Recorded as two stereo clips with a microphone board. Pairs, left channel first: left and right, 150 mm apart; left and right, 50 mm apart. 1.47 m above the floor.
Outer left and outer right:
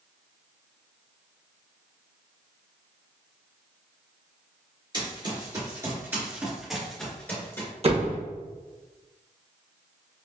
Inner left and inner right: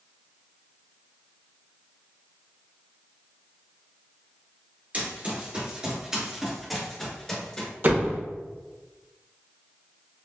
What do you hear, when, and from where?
4.9 s running footsteps: 35° right (ahead or behind), 1.7 m; by 7.7 s 20° left (ahead or behind), 1.4 m
7.8 s a door slam: 45° right (ahead or behind), 0.8 m